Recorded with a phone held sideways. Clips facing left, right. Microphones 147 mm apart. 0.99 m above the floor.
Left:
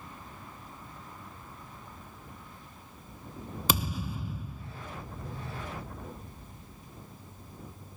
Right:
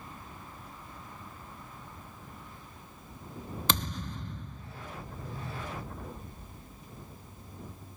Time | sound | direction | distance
3.7 | a thud | 5° left (ahead or behind) | ?